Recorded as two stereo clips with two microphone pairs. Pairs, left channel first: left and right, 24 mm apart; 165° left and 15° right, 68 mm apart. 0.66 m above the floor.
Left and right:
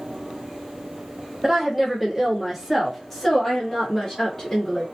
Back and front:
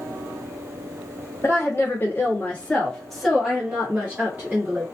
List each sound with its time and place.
1.4 s a woman speaking: 160° right, 1.5 m; by 4.9 s 25° left, 1.5 m